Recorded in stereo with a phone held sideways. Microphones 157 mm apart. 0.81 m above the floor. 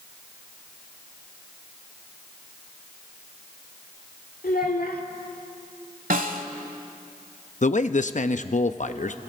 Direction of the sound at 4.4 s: 70° left (ahead or behind).